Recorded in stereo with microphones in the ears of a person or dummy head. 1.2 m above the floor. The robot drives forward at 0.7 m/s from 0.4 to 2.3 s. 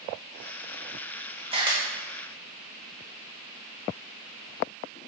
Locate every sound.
1.5 s a camera shutter: 25° right (ahead or behind), 1.0 m